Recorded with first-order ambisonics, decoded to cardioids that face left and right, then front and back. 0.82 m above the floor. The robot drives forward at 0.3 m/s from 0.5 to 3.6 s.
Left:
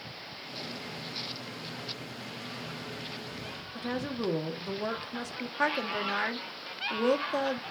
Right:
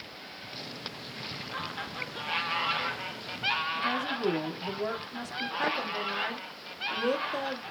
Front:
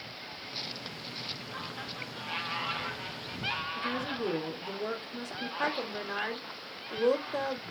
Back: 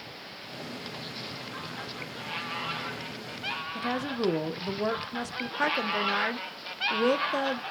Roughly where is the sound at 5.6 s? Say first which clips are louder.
Left 3 dB, back 7 dB; behind left.